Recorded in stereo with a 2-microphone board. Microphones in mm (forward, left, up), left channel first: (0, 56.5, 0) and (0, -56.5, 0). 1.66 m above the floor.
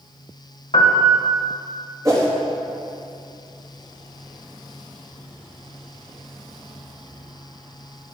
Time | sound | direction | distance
0.7 | a piano | 60° left (ahead or behind) | 1.8 m
2.0 | a whoosh | 30° right (ahead or behind) | 2.5 m